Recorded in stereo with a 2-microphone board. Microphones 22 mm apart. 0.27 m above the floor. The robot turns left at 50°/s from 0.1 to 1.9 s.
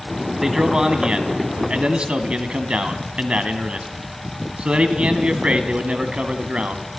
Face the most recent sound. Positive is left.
turn(degrees=-95)